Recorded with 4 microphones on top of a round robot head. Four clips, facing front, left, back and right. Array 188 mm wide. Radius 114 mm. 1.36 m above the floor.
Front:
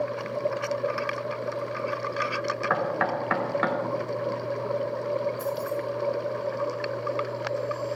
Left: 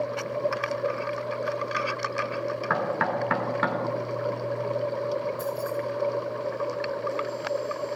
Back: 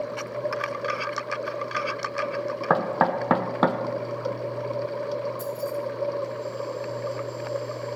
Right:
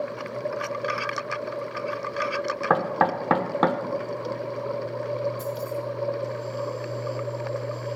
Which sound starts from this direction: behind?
Keys jangling, at 5.4 s.